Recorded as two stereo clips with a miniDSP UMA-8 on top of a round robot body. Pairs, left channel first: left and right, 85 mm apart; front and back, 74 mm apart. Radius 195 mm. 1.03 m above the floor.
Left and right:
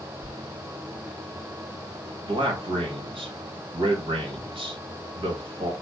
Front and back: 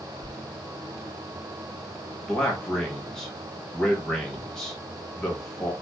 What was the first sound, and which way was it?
A sliding door, 175° right.